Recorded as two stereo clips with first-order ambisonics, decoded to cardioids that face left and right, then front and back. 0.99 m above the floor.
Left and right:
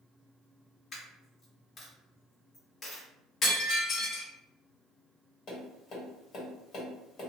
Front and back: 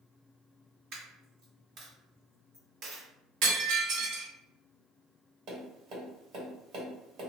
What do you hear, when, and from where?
0.9 s a dropped coin: 150° left, 1.5 m
3.4 s breaking glass: 145° left, 1.1 m
5.5 s tapping: 140° left, 1.5 m